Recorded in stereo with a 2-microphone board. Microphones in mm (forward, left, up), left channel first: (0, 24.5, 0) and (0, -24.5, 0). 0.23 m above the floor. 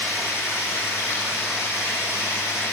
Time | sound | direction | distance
0.0 | running water | 65° left (ahead or behind) | 4.5 m